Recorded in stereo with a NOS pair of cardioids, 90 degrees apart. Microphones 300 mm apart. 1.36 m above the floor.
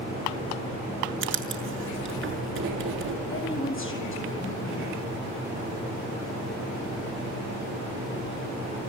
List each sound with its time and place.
1.2 s writing: 45° right, 6.5 m
3.3 s a woman speaking: 45° left, 8.5 m